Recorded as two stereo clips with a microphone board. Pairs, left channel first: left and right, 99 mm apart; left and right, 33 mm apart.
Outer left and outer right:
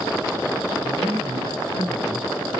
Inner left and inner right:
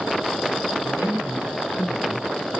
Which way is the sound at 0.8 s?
55° right (ahead or behind).